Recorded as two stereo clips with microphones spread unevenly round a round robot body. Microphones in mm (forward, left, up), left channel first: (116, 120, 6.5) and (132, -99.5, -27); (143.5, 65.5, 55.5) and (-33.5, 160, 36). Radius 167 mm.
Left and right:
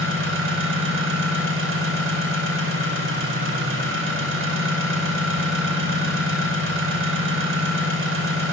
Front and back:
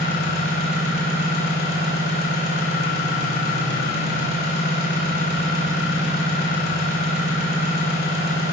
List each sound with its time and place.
0.0 s an engine running: 75° right, 2.5 m